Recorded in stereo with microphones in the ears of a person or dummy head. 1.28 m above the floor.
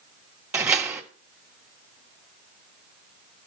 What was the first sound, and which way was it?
A door slam, 10° right (ahead or behind).